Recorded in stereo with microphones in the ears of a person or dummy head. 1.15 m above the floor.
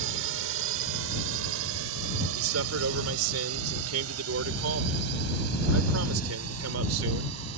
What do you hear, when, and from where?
0.0 s a drone: 65° right (ahead or behind); by 7.6 s 80° right
2.4 s a man speaking: 75° right (ahead or behind)